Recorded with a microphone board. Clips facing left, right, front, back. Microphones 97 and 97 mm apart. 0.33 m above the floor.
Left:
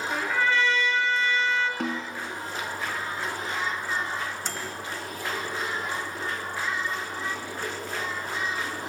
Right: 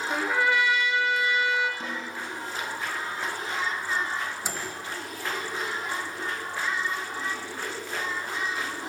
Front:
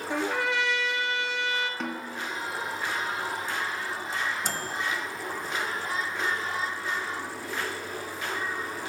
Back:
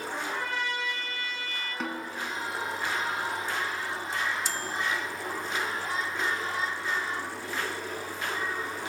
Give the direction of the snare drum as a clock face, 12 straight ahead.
9 o'clock.